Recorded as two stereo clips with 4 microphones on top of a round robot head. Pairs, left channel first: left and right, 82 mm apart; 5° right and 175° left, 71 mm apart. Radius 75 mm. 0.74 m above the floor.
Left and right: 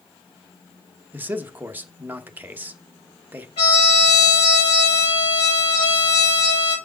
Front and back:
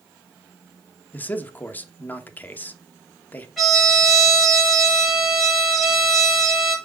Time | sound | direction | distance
1.1 | a man speaking | 45° right | 1.1 m
3.6 | a trumpet | 85° left | 6 m